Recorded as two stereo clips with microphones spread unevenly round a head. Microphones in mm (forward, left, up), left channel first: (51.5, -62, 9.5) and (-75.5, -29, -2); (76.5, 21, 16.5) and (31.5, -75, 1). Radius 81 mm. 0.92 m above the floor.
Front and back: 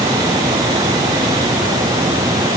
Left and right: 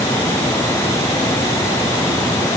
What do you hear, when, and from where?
Only background noise.